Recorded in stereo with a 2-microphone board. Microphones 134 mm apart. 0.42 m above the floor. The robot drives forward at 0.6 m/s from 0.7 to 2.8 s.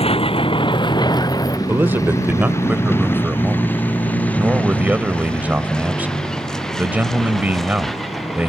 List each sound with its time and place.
0.0 s a vehicle: 45° left (ahead or behind); by 8.5 s centre (ahead or behind)
1.7 s a man speaking: 15° right (ahead or behind); by 8.5 s 10° right (ahead or behind)